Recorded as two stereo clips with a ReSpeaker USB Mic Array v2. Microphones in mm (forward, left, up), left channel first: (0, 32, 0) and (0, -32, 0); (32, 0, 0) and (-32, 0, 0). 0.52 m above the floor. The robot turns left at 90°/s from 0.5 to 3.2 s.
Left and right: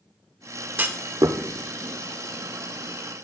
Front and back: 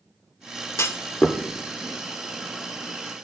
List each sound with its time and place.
0.8 s a clunk: 35° right, 0.5 m; by 1.4 s 90° right, 0.5 m